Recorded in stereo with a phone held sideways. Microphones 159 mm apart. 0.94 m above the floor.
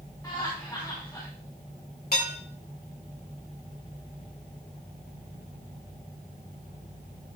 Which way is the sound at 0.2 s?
25° left (ahead or behind).